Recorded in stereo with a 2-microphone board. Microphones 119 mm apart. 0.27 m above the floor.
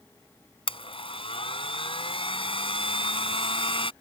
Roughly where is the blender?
Left.